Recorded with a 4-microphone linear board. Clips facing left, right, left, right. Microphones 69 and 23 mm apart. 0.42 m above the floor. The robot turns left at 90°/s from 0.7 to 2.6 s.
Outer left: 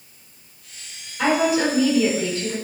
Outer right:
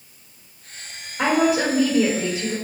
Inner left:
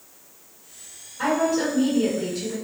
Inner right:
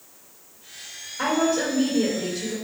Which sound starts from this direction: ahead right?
A woman speaking, at 1.2 s.